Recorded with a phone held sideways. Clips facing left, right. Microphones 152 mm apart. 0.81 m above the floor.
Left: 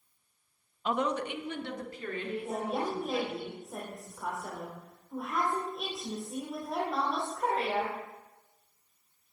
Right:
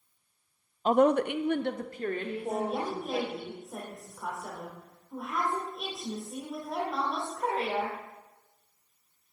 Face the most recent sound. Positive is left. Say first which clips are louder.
# right 3 dB
turn(degrees=0)  # may be behind; listen again after turning